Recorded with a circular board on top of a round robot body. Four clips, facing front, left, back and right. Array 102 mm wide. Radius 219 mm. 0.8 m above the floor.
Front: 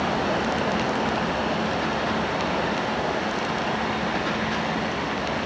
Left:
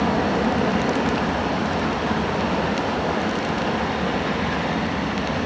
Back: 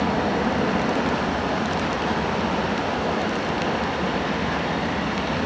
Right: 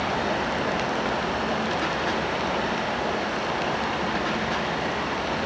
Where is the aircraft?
120° left; by 5.5 s 125° left.